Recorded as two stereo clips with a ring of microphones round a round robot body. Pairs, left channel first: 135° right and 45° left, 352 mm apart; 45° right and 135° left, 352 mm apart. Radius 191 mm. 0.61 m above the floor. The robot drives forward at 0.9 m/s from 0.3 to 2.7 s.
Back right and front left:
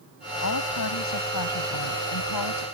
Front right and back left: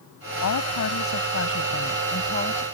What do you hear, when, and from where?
0.4 s a woman speaking: 90° right; by 2.6 s 110° right